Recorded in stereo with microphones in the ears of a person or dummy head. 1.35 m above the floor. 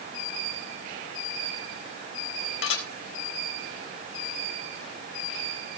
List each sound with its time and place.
2.6 s dishes clattering: 80° left, 4 m